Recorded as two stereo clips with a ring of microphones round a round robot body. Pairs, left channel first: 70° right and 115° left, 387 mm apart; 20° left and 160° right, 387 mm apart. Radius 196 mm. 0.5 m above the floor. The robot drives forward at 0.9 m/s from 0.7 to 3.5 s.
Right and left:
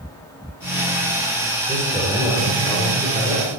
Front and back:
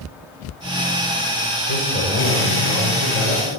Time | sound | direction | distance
1.7 | a man speaking | 155° right | 6.5 m